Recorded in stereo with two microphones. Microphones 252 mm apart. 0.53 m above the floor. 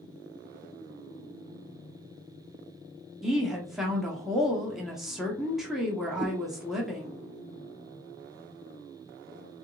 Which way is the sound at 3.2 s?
Centre (ahead or behind).